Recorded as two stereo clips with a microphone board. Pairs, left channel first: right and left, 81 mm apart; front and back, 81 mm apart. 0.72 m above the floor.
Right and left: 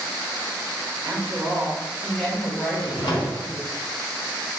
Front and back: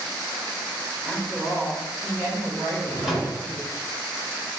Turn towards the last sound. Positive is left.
turn(degrees=-95)